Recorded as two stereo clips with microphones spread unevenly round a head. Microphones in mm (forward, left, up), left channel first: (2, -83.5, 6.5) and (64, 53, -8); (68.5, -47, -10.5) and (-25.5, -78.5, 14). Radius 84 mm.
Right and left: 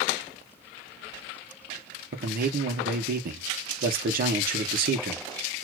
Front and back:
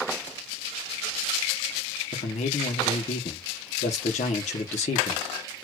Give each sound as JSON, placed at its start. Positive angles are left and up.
{"t": 2.1, "sound": "a man speaking", "azimuth_deg": 40, "distance_m": 1.2}